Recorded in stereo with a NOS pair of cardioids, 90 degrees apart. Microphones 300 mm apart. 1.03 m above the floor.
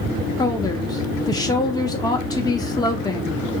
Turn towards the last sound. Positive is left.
turn(degrees=15)